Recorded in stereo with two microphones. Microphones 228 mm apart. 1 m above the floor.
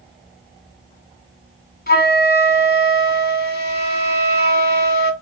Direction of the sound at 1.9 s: 45° left (ahead or behind).